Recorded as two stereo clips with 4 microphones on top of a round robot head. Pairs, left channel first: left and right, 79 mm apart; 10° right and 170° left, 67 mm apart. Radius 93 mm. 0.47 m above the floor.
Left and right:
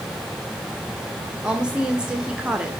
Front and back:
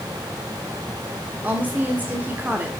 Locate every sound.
1.4 s a woman speaking: 160° right, 1.3 m